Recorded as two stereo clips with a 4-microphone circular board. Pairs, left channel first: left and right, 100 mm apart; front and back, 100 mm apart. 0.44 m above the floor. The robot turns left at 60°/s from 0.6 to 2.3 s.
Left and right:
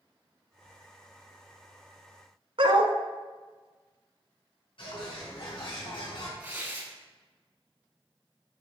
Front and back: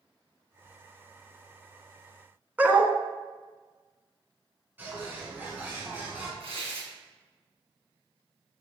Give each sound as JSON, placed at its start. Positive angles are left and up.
{"t": 2.6, "sound": "a dog barking", "azimuth_deg": -105, "distance_m": 1.2}
{"t": 4.8, "sound": "a bird", "azimuth_deg": 110, "distance_m": 4.0}
{"t": 6.4, "sound": "tearing paper", "azimuth_deg": -160, "distance_m": 3.0}